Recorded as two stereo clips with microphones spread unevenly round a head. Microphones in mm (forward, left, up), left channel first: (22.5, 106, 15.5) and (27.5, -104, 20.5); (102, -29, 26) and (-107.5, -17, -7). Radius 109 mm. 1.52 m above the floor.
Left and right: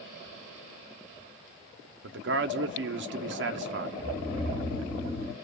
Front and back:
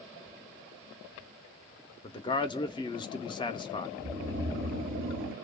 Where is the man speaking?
65° right, 0.6 m.